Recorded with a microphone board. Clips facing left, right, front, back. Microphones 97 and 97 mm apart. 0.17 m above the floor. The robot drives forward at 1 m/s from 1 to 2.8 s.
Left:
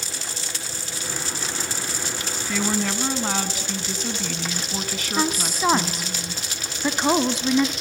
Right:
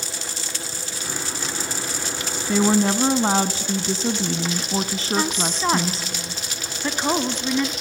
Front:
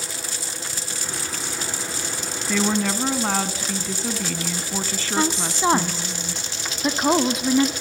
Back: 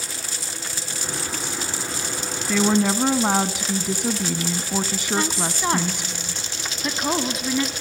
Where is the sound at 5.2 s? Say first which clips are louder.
Left 2 dB, front 4 dB; 25° left, 1.1 m.